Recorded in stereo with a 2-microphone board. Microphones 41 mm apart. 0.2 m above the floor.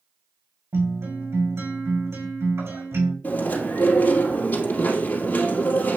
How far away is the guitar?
About 5.5 m.